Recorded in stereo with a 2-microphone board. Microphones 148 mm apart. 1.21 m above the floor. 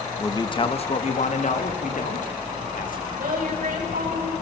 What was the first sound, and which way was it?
A man speaking, 20° left (ahead or behind).